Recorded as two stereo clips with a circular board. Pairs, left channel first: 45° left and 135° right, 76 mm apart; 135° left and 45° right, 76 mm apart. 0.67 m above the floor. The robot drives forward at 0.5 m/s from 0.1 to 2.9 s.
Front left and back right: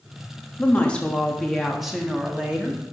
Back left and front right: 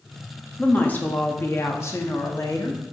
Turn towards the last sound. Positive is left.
turn(degrees=155)